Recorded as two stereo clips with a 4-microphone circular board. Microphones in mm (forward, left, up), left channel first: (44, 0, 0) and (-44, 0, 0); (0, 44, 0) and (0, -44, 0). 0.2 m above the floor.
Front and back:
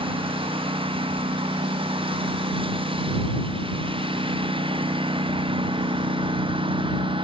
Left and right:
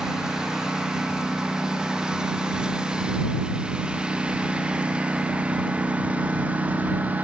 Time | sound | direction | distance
0.0 | a lawn mower | 175° right | ?